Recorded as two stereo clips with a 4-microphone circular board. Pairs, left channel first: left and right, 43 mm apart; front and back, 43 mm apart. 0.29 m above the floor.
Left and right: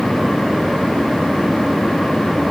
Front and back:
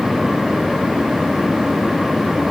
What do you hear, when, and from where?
Only background noise.